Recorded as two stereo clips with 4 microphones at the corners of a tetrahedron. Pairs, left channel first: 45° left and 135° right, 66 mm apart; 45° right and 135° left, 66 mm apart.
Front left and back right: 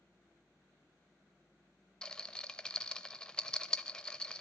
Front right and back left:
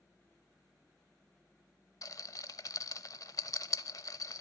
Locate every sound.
2.0 s a rattle: 35° right, 0.5 m